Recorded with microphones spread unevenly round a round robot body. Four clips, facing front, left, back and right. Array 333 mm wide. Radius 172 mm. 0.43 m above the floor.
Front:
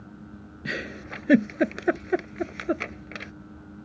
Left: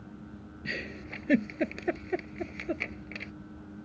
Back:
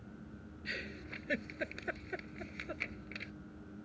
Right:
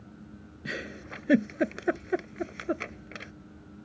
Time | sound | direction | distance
0.7 | a giggle | 10° right | ?